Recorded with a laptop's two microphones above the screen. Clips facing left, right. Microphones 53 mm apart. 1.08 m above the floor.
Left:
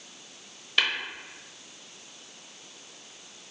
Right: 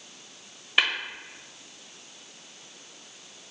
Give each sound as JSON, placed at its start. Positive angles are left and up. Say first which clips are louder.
{"t": 0.8, "sound": "tapping", "louder": "right 2 dB", "side_deg": -20, "distance_m": 1.0}